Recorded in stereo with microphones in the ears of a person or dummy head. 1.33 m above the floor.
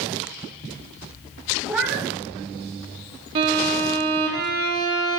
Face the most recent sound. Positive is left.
turn(degrees=-25)  # may be behind; listen again after turning